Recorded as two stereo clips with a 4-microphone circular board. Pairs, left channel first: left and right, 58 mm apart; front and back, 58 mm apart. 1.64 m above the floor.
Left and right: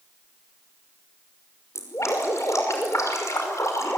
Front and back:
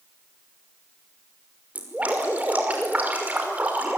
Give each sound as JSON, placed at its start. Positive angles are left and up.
{"t": 1.8, "sound": "dripping", "azimuth_deg": 115, "distance_m": 5.5}